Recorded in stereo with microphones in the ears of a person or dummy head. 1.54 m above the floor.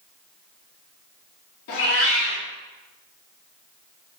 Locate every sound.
1.7 s a cat meowing: 45° left (ahead or behind), 1.0 m